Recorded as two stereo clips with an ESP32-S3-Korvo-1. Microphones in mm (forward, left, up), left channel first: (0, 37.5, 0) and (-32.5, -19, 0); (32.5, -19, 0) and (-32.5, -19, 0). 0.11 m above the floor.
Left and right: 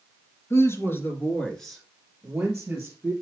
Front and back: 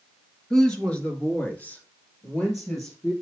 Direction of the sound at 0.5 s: 75° left.